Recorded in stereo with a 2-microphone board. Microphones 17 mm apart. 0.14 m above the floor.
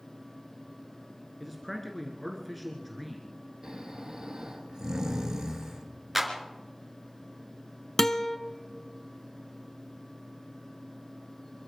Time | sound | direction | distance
1.4 | a man speaking | 5° left (ahead or behind) | 1.8 m
3.6 | snoring | 40° right (ahead or behind) | 2 m
6.2 | a clap | 5° right (ahead or behind) | 2.0 m
8.0 | a guitar | 30° left (ahead or behind) | 0.7 m